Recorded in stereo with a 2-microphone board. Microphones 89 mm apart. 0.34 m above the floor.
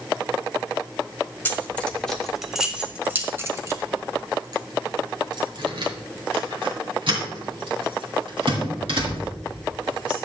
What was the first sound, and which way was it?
Keys jangling, 20° left (ahead or behind).